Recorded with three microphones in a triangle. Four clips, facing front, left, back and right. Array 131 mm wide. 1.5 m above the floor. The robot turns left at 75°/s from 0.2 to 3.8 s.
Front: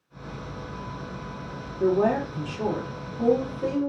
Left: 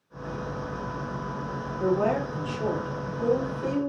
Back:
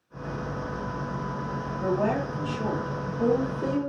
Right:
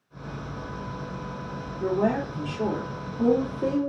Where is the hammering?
I don't hear hammering.